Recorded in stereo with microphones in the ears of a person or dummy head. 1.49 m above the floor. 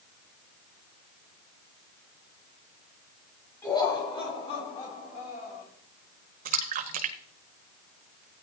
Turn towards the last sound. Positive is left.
turn(degrees=-45)  # may be behind; listen again after turning